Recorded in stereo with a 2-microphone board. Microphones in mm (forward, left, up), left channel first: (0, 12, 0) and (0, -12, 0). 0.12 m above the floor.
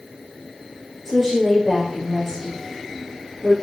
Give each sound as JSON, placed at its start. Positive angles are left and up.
{"t": 1.1, "sound": "a woman speaking", "side_deg": 0, "distance_m": 4.0}